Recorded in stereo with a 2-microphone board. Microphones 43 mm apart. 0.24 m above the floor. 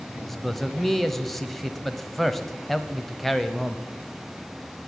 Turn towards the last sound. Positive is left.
turn(degrees=5)  # may be behind; listen again after turning